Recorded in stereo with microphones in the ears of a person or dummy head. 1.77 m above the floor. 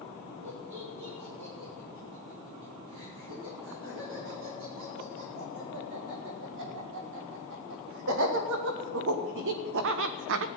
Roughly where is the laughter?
Right.